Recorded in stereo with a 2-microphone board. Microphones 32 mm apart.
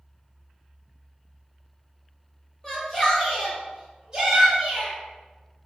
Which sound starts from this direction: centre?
A shout, at 2.6 s.